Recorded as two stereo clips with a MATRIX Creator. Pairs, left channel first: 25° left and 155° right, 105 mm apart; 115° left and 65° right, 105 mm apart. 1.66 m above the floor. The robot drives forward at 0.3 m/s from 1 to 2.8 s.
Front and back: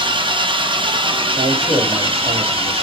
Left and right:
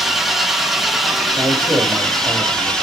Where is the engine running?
155° right, 1.3 m; by 2.8 s 165° right, 1.7 m.